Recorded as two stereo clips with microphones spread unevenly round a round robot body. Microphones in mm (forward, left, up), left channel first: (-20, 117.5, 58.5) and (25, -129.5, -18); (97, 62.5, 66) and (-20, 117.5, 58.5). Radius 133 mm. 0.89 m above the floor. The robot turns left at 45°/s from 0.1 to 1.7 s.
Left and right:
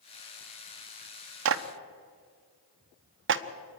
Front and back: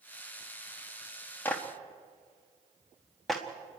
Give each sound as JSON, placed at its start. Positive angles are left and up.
{"t": 1.4, "sound": "a clap", "azimuth_deg": -105, "distance_m": 1.0}